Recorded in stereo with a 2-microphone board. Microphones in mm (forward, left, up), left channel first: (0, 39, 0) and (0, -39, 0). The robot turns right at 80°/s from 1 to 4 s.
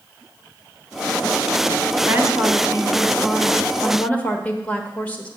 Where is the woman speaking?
120° right, 1.2 m; by 5.3 s 35° left, 1.2 m.